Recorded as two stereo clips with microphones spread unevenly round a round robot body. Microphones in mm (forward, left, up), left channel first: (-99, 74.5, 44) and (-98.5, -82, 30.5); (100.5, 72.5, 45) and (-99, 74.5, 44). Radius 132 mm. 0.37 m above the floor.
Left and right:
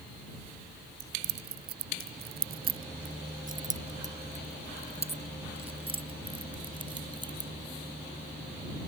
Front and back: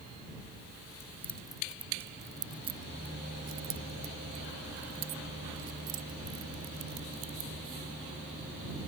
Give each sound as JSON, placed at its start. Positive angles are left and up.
{"t": 1.0, "sound": "keys jangling", "azimuth_deg": -80}